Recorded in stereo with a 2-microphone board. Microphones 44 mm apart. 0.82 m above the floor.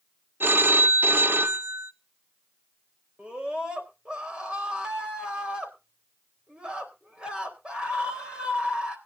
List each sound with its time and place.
0.4 s a phone ringing: 50° right (ahead or behind), 0.7 m
3.2 s a scream: 25° right (ahead or behind), 3.5 m